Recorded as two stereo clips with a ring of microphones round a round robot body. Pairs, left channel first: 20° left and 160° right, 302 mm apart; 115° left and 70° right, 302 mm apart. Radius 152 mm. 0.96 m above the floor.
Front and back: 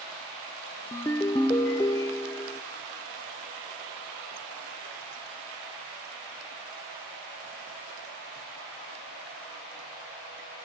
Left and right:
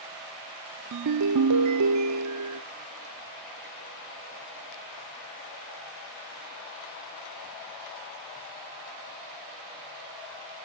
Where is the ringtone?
55° right, 0.6 m.